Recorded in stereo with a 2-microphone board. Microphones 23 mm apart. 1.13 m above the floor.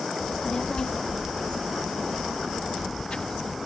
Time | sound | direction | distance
0.2 | a child speaking | 40° left (ahead or behind) | ?